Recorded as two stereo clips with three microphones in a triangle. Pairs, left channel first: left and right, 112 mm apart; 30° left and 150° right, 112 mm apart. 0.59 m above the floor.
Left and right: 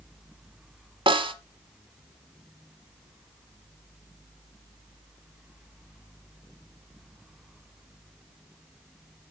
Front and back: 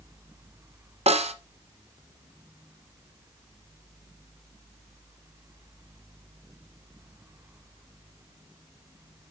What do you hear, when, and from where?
1.1 s a snare drum: 130° right, 1.0 m